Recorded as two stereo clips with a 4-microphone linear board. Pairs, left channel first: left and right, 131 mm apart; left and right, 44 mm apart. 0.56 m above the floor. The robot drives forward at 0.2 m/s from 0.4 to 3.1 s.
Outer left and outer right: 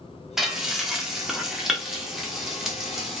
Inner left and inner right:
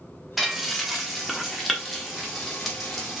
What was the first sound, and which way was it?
Frying, 5° right (ahead or behind).